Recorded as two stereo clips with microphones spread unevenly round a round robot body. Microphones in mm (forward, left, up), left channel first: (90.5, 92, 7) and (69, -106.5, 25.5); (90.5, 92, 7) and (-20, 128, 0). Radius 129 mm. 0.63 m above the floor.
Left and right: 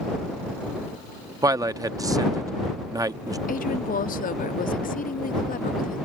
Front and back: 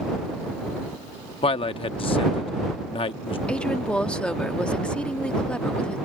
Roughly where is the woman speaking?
Ahead left.